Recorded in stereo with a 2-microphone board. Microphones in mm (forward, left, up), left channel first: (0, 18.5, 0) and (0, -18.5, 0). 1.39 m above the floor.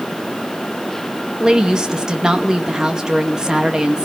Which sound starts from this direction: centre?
A woman speaking, at 1.4 s.